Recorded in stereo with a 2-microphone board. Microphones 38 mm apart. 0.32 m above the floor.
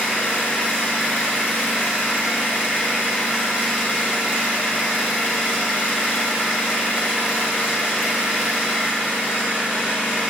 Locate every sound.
0.0 s an engine running: 55° left (ahead or behind), 0.9 m